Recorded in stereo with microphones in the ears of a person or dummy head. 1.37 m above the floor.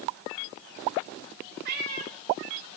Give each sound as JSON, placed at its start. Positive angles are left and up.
{"t": 1.6, "sound": "a cat meowing", "side_deg": -55, "distance_m": 1.3}